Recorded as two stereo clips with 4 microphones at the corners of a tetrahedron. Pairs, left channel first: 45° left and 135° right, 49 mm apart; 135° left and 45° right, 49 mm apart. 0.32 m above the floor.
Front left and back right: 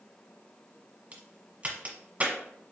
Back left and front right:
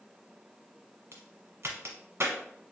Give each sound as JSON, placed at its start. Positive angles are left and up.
{"t": 1.1, "sound": "a crack", "azimuth_deg": -70, "distance_m": 1.1}